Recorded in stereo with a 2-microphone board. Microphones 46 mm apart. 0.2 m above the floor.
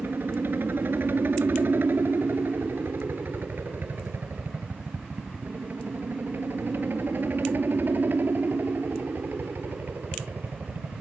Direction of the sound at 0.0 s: 50° right (ahead or behind).